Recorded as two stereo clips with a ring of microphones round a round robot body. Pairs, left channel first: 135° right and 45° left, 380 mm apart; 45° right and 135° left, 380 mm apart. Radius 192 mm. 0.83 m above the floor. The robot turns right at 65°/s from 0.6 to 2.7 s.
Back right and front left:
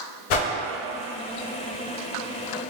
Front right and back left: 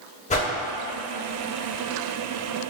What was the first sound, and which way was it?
A whoosh, 120° right.